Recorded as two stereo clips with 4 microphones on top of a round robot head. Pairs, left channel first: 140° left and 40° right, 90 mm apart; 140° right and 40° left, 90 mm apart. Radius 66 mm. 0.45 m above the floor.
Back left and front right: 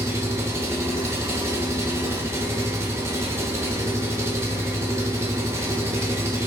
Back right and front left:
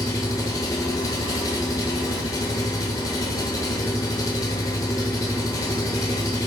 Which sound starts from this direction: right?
An engine running, at 0.0 s.